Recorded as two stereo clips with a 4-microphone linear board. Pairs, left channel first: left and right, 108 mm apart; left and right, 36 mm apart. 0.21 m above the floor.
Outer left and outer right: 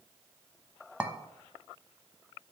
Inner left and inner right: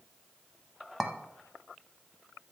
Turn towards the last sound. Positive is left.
turn(degrees=-10)  # may be behind; listen again after turning